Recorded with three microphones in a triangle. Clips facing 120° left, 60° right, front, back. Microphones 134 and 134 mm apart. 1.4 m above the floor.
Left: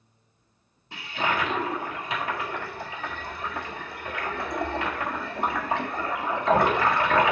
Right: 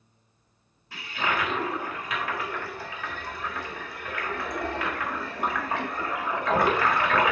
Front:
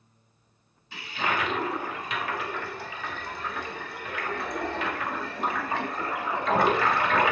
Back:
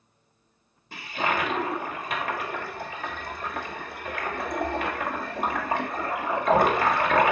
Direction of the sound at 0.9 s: 175° left.